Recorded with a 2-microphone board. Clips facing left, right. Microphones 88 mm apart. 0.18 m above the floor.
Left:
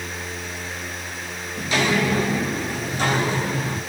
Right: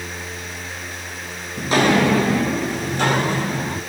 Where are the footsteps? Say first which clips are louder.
Right 5 dB; 30° right (ahead or behind), 0.8 m; by 3.8 s 50° right (ahead or behind), 2.5 m.